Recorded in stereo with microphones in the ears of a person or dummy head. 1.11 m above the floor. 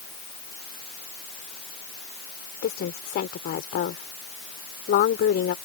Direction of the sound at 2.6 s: 50° left (ahead or behind).